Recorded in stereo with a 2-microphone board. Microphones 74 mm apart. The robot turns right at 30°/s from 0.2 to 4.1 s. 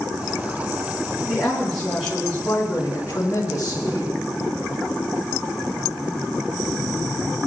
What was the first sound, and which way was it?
A woman speaking, 20° right.